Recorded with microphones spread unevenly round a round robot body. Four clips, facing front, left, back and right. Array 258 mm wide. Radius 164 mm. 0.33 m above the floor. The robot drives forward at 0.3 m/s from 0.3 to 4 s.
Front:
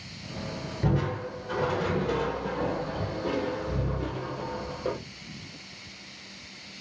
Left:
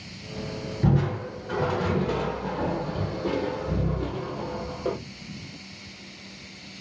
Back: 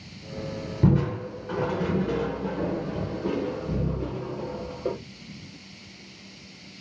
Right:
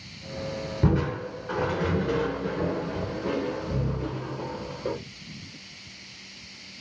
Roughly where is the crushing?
Behind.